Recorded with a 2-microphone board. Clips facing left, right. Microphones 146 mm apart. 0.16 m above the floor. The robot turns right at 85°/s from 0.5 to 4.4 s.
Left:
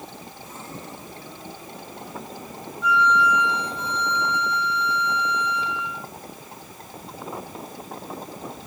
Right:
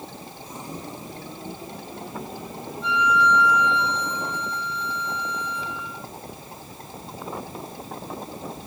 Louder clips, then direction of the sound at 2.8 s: Left 1 dB; 30° right.